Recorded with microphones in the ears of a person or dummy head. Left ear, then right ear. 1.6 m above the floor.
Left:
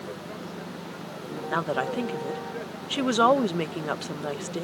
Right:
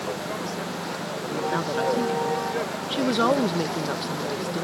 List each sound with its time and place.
0.0 s a vehicle: 30° right (ahead or behind)
1.5 s a woman speaking: 35° left (ahead or behind)